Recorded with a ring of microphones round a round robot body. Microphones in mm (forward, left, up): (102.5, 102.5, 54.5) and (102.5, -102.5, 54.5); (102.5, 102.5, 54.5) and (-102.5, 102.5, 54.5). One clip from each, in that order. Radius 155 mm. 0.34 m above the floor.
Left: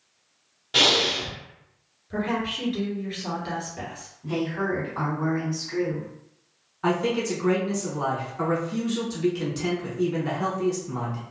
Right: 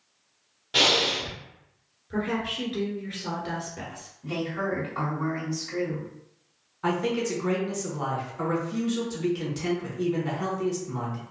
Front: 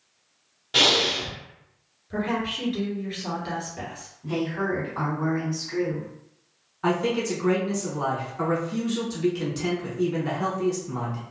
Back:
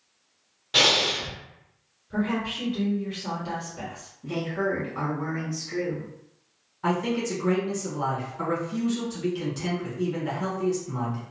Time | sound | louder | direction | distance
0.7 | breathing | left 2 dB, front 1 dB | 175° left | 0.9 m
2.1 | a woman speaking | left 2 dB, front 2 dB | 40° right | 1.6 m
4.2 | a woman speaking | left 2 dB, even | 145° right | 2.0 m
6.8 | a man speaking | left 2 dB, front 2 dB | 5° left | 1.3 m